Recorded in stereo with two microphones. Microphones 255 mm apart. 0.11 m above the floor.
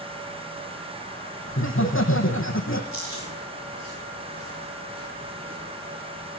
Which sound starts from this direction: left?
Laughter, at 1.5 s.